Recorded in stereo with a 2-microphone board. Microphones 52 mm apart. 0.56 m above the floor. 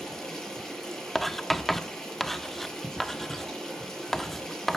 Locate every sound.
0.0 s running water: 5° left (ahead or behind), 5 m
1.1 s writing: 5° left (ahead or behind), 0.6 m